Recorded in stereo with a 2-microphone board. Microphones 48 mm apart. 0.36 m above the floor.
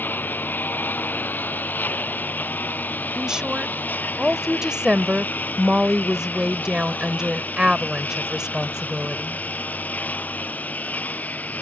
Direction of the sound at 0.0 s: 40° left (ahead or behind).